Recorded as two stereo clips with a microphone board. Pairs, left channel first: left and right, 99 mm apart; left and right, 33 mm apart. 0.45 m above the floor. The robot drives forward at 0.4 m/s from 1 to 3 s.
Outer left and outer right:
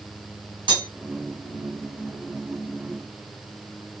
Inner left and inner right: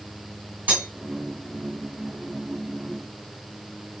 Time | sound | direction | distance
0.7 | cutlery clinking | 60° right (ahead or behind) | 1.9 m